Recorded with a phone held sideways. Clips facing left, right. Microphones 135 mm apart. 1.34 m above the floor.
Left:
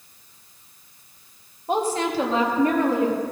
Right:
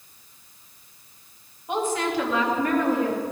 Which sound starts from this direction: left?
A woman speaking, at 1.7 s.